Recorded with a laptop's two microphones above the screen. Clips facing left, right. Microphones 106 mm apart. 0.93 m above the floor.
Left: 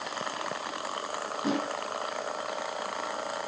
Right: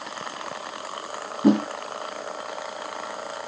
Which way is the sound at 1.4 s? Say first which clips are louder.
Right 11 dB; 55° right (ahead or behind).